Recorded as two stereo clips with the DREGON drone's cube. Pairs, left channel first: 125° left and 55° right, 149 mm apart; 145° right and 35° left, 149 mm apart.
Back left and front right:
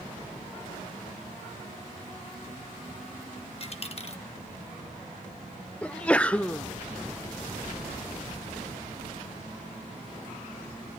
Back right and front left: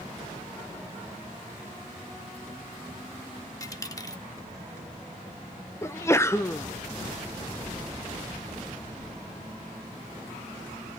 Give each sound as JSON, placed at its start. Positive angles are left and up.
{"t": 3.6, "sound": "a dropped coin", "azimuth_deg": 155, "distance_m": 0.8}
{"t": 5.8, "sound": "a sneeze", "azimuth_deg": -170, "distance_m": 0.6}